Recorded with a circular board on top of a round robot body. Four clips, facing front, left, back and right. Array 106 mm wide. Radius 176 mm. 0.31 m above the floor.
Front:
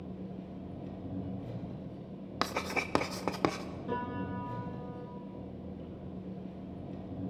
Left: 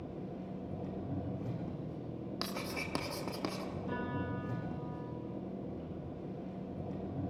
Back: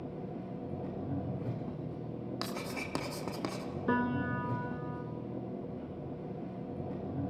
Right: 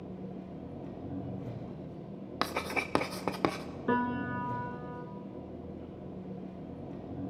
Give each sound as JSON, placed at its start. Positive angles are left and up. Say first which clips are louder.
{"t": 0.0, "sound": "an engine running", "louder": "right 1 dB, back 2 dB", "azimuth_deg": 170, "distance_m": 6.5}
{"t": 2.4, "sound": "writing", "louder": "right 9 dB, front 9 dB", "azimuth_deg": -45, "distance_m": 1.3}
{"t": 3.9, "sound": "a piano", "louder": "right 10 dB, back 5 dB", "azimuth_deg": -140, "distance_m": 1.6}